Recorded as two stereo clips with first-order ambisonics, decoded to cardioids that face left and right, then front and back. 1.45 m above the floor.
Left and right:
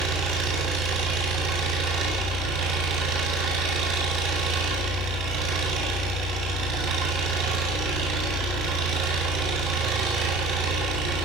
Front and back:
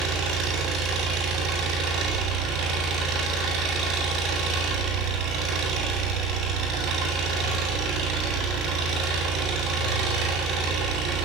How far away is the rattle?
I don't hear a rattle.